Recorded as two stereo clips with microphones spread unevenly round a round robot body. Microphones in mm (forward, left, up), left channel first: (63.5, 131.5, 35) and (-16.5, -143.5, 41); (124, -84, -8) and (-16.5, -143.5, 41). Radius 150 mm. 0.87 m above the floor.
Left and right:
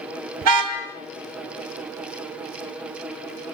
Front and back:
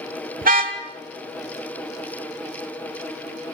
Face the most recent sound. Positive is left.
turn(degrees=-135)